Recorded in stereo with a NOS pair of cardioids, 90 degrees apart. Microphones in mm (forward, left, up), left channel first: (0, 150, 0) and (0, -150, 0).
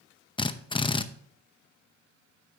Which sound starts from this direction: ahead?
A drill, at 0.4 s.